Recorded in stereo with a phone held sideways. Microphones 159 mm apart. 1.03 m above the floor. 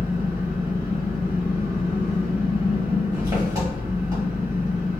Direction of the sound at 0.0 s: 25° right (ahead or behind).